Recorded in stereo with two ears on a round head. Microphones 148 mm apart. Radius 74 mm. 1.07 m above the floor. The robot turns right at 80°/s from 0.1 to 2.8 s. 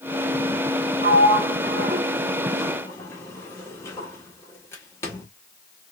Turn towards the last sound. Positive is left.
turn(degrees=15)  # may be behind; listen again after turning